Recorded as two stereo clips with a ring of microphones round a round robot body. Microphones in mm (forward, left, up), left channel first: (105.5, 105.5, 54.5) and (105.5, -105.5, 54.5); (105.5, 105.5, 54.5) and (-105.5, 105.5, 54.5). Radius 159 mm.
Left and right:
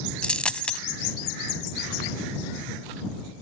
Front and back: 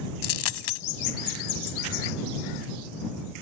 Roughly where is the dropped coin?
Ahead.